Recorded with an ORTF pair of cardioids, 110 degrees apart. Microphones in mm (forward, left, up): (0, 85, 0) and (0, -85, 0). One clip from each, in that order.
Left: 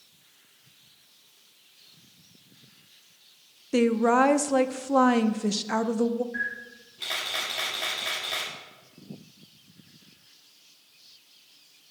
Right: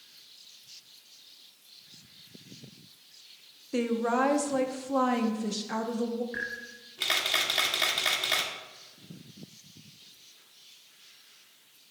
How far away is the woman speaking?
About 0.7 m.